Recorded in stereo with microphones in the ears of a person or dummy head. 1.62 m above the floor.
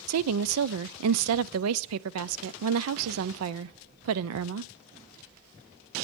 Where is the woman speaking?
80° right, 0.5 m.